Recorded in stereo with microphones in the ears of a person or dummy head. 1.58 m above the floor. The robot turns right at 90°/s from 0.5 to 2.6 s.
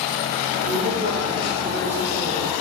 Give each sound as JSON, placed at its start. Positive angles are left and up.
{"t": 0.6, "sound": "a woman speaking", "azimuth_deg": -95, "distance_m": 3.0}